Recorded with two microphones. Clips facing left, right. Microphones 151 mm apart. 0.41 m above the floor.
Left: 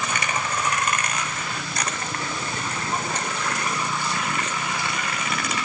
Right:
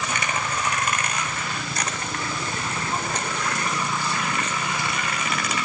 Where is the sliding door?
No sliding door in this recording.